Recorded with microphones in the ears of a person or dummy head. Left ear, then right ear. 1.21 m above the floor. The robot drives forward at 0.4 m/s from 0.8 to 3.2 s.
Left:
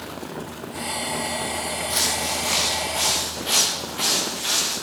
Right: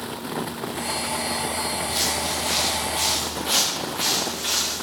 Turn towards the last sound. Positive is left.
turn(degrees=10)  # may be behind; listen again after turning